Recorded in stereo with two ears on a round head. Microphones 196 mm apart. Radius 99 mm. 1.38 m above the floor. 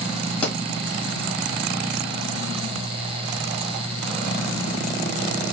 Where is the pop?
5° left (ahead or behind), 1.8 m.